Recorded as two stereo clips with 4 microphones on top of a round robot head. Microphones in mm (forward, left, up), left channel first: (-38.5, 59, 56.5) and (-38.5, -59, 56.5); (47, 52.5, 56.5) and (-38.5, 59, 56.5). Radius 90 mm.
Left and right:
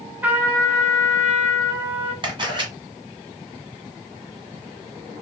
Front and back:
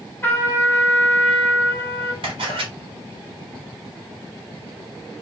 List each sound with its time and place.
0.2 s a trumpet: 30° right, 0.9 m
2.2 s a camera shutter: 140° right, 1.3 m